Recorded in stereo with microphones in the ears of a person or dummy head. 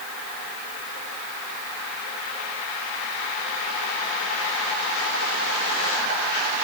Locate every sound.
Only background noise.